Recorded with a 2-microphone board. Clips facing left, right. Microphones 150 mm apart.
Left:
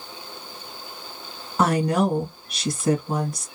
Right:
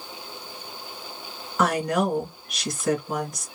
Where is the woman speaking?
30° left (ahead or behind), 1.7 m.